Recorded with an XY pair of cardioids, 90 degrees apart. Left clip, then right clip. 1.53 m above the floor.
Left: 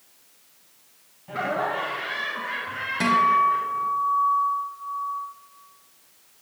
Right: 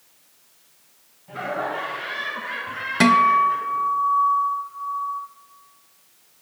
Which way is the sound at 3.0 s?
70° right.